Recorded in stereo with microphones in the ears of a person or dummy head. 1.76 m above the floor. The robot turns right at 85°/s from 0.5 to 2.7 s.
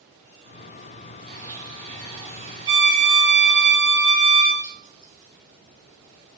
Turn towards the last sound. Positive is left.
turn(degrees=65)  # may be behind; listen again after turning